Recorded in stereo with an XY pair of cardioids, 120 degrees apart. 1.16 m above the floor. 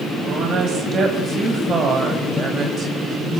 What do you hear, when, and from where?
0.2 s a woman speaking: 50° right, 6.5 m; by 3.4 s 35° right, 5.5 m